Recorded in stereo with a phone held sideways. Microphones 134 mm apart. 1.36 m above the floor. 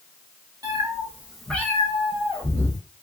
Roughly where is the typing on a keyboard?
I don't hear typing on a keyboard.